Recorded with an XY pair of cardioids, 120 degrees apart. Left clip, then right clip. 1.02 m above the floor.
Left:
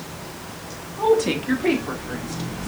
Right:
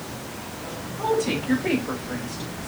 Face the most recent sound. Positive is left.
turn(degrees=55)